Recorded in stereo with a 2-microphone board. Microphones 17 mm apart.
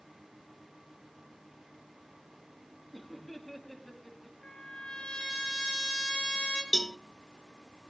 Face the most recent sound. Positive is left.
turn(degrees=25)  # may be behind; listen again after turning